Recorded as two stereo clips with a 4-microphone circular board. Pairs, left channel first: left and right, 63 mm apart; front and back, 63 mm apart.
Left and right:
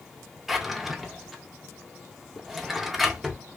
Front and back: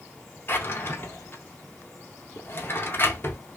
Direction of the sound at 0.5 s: 5° right.